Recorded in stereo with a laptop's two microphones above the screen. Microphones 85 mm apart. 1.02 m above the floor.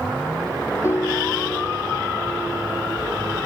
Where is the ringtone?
30° left (ahead or behind).